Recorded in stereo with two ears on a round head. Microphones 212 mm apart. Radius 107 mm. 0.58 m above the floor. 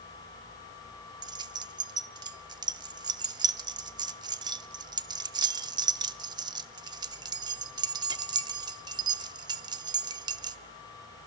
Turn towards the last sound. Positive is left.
turn(degrees=-20)  # may be behind; listen again after turning